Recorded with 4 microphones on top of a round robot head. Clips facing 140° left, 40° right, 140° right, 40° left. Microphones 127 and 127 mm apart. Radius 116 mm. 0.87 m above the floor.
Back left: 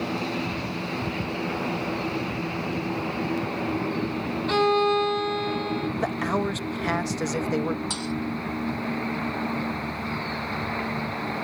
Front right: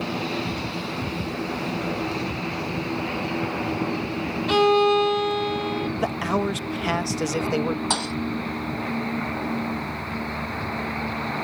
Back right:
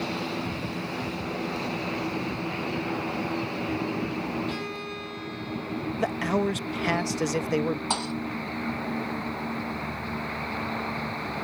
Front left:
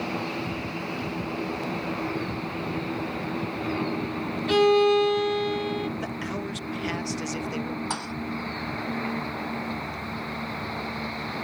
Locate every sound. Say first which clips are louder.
4.5 s a violin: front right 4 dB, front left 16 dB; 40° left
6.0 s a man speaking: front right 2 dB, back right 6 dB; 120° right
7.9 s a thud: front right 3 dB, back right 3 dB; 70° right